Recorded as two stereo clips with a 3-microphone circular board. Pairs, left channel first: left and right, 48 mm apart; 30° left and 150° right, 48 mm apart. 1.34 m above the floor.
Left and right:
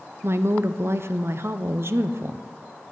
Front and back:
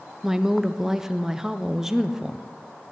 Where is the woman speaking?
70° right, 0.5 m.